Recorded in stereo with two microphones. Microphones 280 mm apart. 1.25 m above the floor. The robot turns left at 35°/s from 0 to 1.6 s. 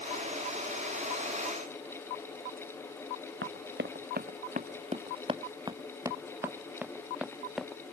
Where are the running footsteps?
45° right (ahead or behind); by 7.9 s centre (ahead or behind).